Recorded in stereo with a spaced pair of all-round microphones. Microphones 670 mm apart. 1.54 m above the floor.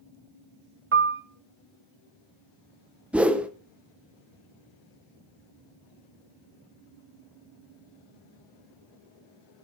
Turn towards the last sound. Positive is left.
turn(degrees=0)  # may be behind; listen again after turning